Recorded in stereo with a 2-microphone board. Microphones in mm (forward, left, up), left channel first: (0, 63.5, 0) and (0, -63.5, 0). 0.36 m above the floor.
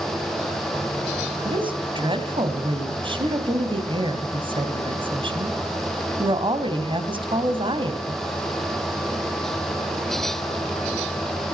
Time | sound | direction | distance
1.4 | a woman speaking | 40° right (ahead or behind) | 2 m